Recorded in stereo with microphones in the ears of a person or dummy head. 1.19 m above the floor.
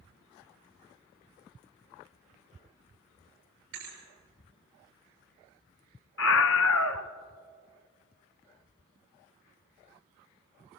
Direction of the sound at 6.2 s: 65° left (ahead or behind).